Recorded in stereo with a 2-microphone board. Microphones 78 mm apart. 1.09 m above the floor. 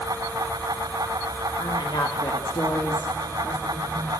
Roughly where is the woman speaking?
Left.